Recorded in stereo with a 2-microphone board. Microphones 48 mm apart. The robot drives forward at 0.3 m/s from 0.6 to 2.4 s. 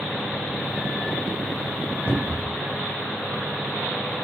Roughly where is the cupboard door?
Left.